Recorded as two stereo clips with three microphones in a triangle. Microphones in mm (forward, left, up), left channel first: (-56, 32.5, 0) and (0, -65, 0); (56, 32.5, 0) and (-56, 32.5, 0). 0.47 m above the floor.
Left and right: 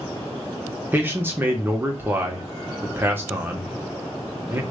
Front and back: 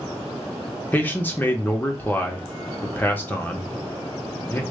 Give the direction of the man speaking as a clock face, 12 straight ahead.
1 o'clock.